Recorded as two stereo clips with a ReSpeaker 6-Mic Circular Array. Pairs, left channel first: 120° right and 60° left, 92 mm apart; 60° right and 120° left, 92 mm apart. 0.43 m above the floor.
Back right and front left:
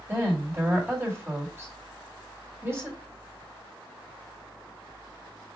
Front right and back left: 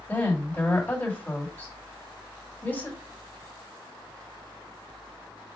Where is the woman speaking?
5° left, 1.9 m.